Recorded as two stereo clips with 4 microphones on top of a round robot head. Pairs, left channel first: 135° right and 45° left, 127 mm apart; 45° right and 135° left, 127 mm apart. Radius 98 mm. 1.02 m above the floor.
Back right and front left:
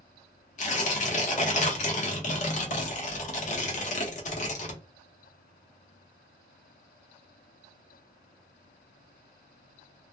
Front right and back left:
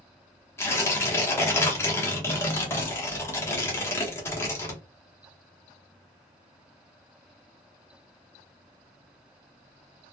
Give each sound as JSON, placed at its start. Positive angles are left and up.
{"t": 0.6, "sound": "tearing paper", "azimuth_deg": -115, "distance_m": 0.9}